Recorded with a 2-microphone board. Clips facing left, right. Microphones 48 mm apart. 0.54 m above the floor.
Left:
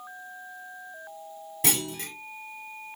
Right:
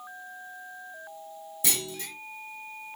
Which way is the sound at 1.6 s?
60° left (ahead or behind).